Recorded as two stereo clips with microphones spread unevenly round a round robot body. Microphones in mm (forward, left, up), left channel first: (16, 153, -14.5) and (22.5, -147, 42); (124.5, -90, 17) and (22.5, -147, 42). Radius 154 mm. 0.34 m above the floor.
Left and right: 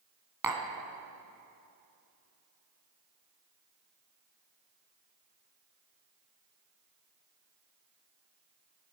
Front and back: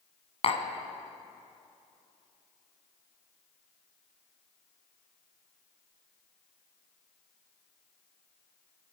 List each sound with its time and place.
0.4 s tapping: 5° right, 1.6 m